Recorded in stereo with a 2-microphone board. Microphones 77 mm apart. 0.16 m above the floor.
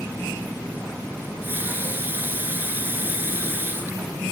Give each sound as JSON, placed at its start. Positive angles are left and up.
{"t": 1.2, "sound": "a running tap", "side_deg": -25, "distance_m": 1.8}